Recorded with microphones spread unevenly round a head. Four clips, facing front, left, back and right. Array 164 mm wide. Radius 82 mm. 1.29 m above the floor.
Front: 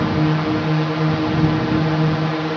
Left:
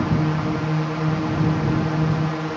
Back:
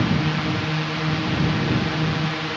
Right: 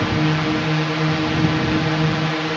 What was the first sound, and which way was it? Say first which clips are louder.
A drone: right 2 dB, front 4 dB; 25° right.